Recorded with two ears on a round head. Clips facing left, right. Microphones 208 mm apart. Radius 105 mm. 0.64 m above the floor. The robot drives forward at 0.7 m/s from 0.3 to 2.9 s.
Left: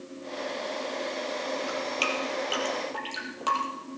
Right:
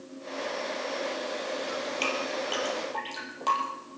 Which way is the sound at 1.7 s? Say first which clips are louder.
Left 1 dB; 10° left (ahead or behind).